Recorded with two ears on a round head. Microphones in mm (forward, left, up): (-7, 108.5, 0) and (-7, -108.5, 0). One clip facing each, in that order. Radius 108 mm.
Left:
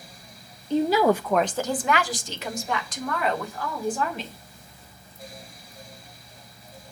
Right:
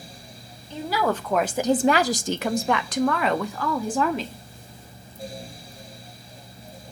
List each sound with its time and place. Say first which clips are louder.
0.7 s a woman speaking: left 6 dB; 30° left (ahead or behind), 0.6 m; by 4.4 s 65° right (ahead or behind), 1.7 m